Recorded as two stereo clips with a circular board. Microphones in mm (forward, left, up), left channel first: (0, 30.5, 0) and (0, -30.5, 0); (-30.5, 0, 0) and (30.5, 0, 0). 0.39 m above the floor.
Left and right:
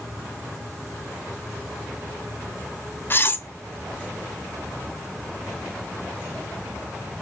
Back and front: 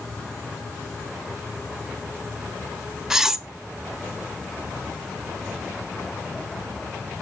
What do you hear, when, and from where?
3.1 s cutlery clinking: 80° left, 0.8 m